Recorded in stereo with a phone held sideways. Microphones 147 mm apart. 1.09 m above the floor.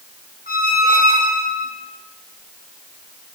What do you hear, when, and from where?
0.5 s a squeak: 85° left, 1.3 m